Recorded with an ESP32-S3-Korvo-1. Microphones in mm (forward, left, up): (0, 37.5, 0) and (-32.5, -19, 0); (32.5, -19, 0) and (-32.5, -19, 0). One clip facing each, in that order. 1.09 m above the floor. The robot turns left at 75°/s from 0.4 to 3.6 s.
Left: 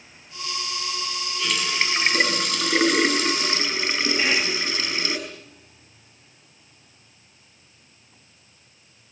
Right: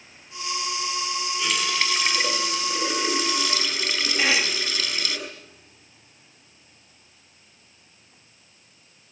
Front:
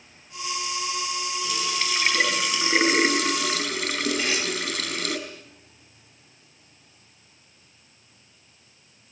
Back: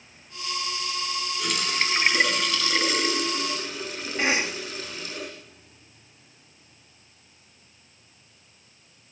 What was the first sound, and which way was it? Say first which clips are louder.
A running tap: left 2 dB, back 3 dB; 165° left.